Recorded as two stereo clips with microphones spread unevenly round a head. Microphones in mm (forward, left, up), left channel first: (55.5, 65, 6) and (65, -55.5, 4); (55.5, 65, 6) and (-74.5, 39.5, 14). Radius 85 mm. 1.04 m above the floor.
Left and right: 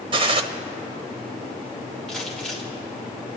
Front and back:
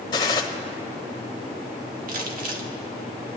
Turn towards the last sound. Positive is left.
turn(degrees=180)